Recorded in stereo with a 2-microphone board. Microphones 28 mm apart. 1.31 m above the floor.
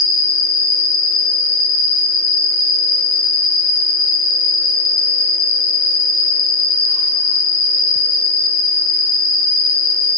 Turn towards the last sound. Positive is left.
turn(degrees=35)  # may be behind; listen again after turning